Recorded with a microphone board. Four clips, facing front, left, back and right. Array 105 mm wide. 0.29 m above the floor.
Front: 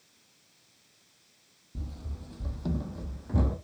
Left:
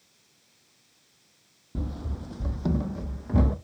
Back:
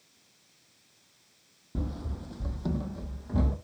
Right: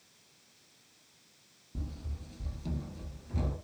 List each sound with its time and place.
1.8 s running footsteps: 140° left, 0.6 m; by 3.5 s 80° left, 1.3 m